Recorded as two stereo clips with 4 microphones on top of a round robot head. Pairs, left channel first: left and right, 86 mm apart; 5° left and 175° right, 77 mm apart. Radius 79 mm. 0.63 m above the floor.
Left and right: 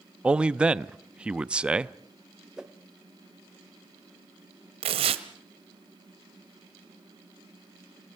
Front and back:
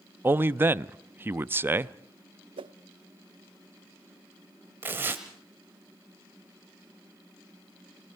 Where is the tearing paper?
105° right, 1.4 m.